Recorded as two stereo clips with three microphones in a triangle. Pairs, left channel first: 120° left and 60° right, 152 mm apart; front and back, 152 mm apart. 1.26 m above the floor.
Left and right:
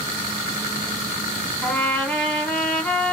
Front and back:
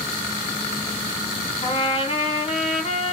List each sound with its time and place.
1.6 s a trumpet: 40° left, 1.2 m